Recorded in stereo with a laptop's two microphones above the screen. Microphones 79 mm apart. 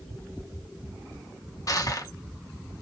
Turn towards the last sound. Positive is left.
turn(degrees=45)  # may be behind; listen again after turning